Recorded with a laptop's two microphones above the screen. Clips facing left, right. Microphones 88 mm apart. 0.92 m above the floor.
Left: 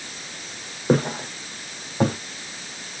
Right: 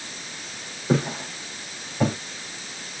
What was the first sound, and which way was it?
Footsteps, 50° left (ahead or behind).